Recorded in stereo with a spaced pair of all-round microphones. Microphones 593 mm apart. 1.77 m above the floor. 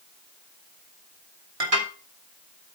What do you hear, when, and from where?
1.6 s dishes clattering: 65° right (ahead or behind), 3 m